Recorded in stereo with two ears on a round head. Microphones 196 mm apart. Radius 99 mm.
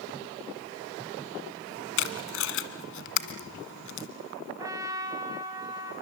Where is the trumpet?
15° right (ahead or behind), 3.5 m.